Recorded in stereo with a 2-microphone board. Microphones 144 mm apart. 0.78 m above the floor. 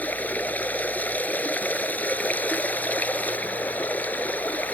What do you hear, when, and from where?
0.0 s running water: 10° left (ahead or behind)